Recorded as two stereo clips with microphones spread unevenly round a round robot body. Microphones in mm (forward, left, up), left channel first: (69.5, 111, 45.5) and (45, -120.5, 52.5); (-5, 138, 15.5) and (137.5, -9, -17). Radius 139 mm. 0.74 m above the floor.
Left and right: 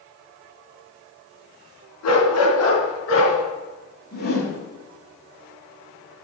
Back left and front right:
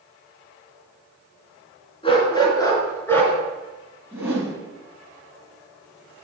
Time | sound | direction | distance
2.0 | a dog barking | 70° left | 3.5 m
4.1 | a whoosh | 35° left | 4.5 m